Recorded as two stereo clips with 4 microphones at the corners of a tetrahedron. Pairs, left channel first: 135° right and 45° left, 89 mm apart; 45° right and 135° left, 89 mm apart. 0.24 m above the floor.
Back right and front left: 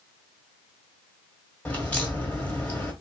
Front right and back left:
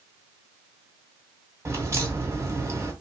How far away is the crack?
About 1.6 m.